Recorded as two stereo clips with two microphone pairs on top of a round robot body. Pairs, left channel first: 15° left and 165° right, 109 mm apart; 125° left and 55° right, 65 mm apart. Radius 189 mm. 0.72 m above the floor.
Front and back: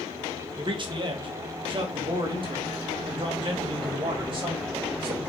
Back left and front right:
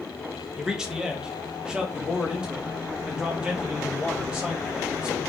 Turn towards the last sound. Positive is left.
turn(degrees=-125)